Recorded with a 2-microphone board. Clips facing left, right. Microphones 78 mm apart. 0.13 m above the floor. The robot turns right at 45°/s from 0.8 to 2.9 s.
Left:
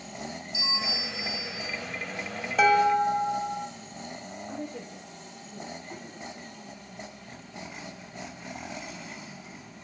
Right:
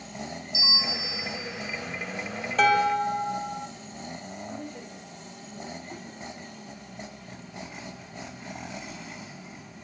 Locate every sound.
0.5 s a bell: 50° left, 3 m; by 1.7 s 90° left, 3 m
2.6 s dishes clattering: 5° left (ahead or behind), 2 m; by 3.7 s 20° left (ahead or behind), 2 m
4.5 s a woman speaking: 40° left (ahead or behind), 4 m